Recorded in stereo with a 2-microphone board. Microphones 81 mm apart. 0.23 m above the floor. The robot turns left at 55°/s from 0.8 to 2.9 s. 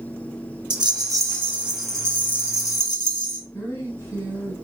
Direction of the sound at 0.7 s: 120° right.